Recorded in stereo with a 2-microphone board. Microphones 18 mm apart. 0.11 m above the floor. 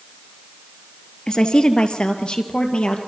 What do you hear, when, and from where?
1.3 s a woman speaking: 45° left (ahead or behind), 2.0 m; by 3.0 s 60° left (ahead or behind), 3 m